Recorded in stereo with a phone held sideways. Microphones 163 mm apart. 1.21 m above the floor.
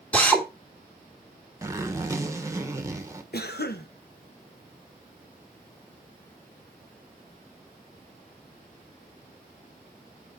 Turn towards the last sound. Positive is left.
turn(degrees=80)